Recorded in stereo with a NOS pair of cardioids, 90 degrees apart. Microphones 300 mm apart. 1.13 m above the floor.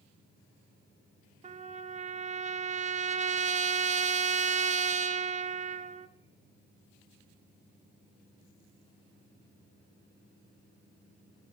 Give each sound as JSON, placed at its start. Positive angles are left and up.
{"t": 1.4, "sound": "a trumpet", "azimuth_deg": -25, "distance_m": 0.6}